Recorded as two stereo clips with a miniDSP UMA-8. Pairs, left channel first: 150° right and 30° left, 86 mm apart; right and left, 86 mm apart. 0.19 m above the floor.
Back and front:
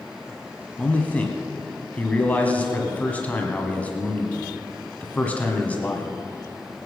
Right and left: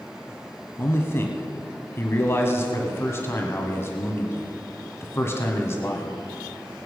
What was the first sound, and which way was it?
A man speaking, 95° right.